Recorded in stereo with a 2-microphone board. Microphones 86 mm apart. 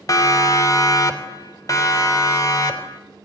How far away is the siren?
About 2.5 m.